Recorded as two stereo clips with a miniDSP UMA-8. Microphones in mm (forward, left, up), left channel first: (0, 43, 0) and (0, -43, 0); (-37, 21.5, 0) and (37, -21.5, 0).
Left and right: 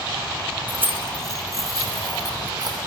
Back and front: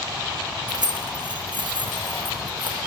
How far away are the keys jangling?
About 1.6 m.